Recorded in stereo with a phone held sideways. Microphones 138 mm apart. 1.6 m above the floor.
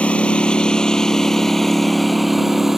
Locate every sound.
0.0 s a lawn mower: 10° left (ahead or behind); by 2.8 s centre (ahead or behind)